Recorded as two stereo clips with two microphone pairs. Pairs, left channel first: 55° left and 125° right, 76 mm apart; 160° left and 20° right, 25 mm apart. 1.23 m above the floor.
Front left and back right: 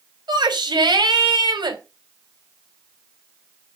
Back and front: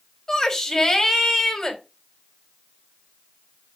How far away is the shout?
About 3.5 m.